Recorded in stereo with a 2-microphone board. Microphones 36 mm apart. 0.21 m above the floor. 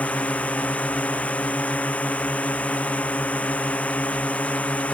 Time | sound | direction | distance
0.0 | a drone | 40° left (ahead or behind) | ?